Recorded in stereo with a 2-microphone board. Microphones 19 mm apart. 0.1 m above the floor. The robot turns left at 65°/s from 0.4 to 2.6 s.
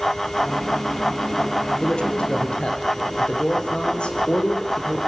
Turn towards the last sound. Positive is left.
turn(degrees=70)